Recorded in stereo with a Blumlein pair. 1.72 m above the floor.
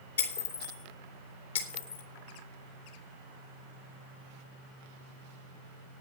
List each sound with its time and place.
0.2 s breaking glass: 65° left, 3 m